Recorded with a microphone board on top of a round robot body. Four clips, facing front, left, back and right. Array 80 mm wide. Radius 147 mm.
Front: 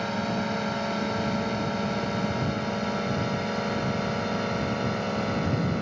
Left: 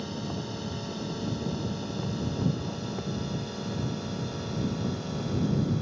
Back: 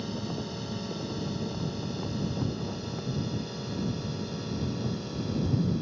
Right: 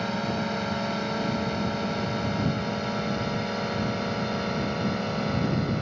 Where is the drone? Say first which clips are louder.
Right 7 dB, front 7 dB; 40° right; by 5.8 s 30° right.